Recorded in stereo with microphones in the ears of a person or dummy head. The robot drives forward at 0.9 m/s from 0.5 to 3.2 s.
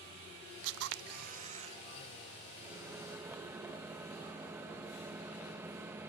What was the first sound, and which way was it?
A camera shutter, 75° right (ahead or behind).